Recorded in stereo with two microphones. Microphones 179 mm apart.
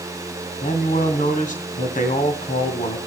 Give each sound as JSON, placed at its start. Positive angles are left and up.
{"t": 0.6, "sound": "a man speaking", "side_deg": 50, "distance_m": 2.5}